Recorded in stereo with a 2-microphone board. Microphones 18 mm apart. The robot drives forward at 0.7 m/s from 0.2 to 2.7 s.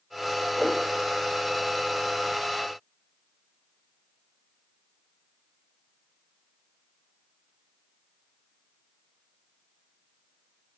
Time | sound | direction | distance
0.6 | a whoosh | 10° left (ahead or behind) | 4 m